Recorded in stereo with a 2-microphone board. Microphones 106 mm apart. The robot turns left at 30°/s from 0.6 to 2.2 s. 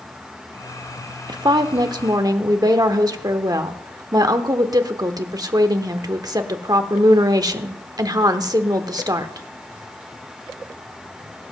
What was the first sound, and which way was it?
A woman speaking, 45° right (ahead or behind).